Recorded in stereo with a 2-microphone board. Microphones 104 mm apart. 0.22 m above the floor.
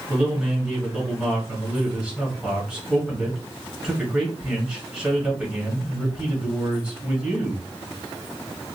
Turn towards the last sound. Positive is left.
turn(degrees=-10)  # may be behind; listen again after turning